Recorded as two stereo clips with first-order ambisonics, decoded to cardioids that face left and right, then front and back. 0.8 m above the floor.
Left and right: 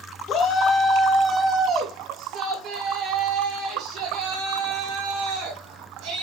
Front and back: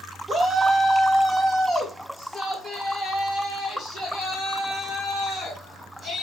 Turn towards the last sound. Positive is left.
turn(degrees=-75)